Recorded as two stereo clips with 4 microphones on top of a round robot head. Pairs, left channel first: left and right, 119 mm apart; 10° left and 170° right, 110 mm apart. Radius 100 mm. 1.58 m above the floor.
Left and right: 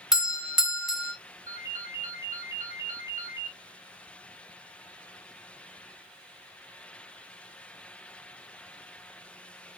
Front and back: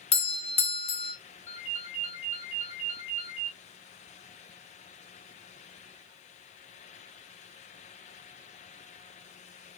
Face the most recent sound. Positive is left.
turn(degrees=-30)